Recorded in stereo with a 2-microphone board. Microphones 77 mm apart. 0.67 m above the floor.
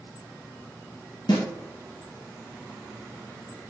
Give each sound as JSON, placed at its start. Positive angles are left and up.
{"t": 1.3, "sound": "a snare drum", "side_deg": 75, "distance_m": 1.7}